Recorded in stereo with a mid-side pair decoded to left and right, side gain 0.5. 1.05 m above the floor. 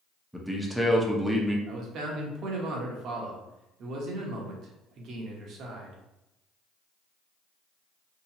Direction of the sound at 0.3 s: 5° right.